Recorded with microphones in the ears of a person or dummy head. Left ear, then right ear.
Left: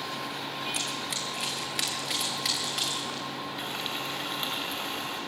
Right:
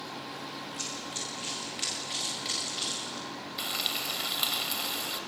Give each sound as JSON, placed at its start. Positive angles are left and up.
{"t": 0.7, "sound": "running footsteps", "side_deg": 60, "distance_m": 5.5}
{"t": 3.6, "sound": "frying", "side_deg": -15, "distance_m": 2.0}